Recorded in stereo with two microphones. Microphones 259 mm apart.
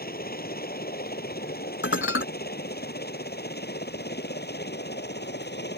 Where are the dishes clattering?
50° left (ahead or behind).